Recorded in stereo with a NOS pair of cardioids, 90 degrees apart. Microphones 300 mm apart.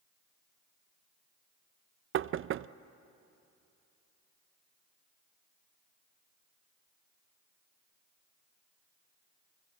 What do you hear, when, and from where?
2.1 s knocking: 45° right, 0.5 m